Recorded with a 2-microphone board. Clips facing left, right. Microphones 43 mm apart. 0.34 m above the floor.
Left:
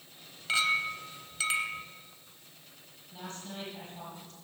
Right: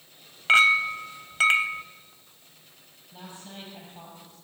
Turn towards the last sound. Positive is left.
turn(degrees=-15)  # may be behind; listen again after turning